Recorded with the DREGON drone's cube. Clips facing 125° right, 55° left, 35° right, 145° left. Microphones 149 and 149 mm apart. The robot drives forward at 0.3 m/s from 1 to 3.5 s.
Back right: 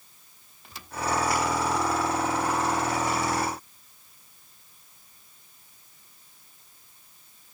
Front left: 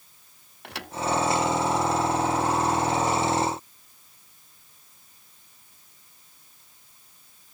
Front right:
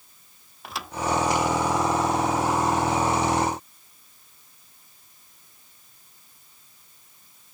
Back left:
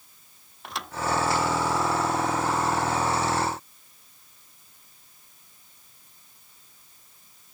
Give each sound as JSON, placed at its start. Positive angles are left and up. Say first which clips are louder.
{"t": 0.6, "sound": "a thud", "louder": "front left 9 dB, even", "azimuth_deg": 55}